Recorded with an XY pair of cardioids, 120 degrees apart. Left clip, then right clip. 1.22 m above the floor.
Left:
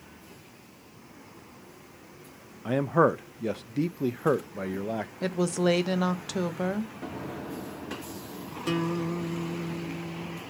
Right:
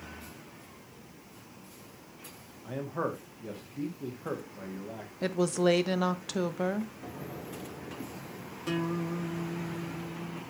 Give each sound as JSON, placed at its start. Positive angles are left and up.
{"t": 2.6, "sound": "a man speaking", "azimuth_deg": 60, "distance_m": 0.8}
{"t": 5.2, "sound": "a woman speaking", "azimuth_deg": 5, "distance_m": 1.0}
{"t": 7.0, "sound": "an explosion", "azimuth_deg": 50, "distance_m": 2.5}
{"t": 8.7, "sound": "a guitar", "azimuth_deg": 30, "distance_m": 2.0}